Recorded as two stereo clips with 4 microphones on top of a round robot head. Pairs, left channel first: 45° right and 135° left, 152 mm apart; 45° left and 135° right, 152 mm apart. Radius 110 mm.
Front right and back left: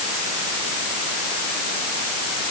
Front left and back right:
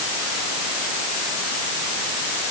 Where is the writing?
No writing in this recording.